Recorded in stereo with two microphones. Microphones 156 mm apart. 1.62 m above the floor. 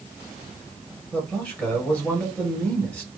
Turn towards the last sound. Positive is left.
turn(degrees=10)  # may be behind; listen again after turning